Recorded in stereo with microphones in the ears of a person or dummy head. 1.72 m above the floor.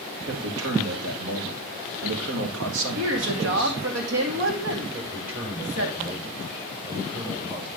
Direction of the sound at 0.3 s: 80° right.